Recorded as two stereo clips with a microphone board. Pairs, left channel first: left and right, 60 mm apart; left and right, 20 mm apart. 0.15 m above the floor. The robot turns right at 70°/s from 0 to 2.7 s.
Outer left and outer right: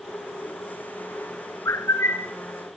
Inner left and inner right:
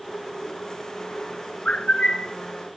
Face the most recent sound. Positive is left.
turn(degrees=160)